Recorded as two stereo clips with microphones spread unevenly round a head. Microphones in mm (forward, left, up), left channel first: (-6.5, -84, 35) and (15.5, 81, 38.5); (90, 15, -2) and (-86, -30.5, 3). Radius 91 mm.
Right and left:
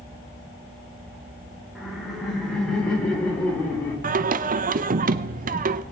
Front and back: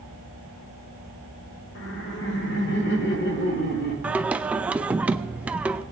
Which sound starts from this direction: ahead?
Laughter, at 1.8 s.